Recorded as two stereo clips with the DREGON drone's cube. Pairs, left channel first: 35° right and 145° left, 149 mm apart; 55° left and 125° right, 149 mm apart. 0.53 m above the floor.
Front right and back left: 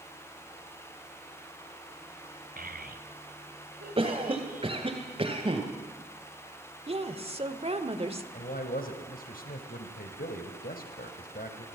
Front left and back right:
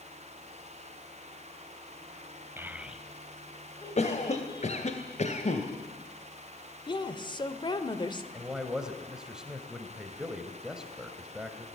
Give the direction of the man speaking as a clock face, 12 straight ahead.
1 o'clock.